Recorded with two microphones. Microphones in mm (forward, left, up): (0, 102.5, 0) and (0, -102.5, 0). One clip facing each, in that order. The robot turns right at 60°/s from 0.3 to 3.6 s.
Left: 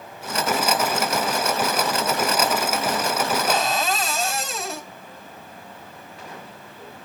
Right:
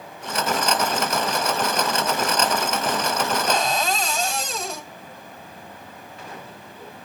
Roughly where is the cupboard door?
Centre.